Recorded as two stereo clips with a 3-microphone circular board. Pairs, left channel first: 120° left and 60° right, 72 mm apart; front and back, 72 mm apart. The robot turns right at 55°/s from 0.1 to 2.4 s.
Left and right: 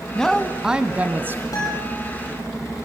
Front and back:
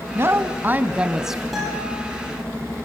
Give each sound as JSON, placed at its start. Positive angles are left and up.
{"t": 0.1, "sound": "a woman speaking", "azimuth_deg": -165, "distance_m": 1.2}
{"t": 1.5, "sound": "a guitar", "azimuth_deg": 90, "distance_m": 7.0}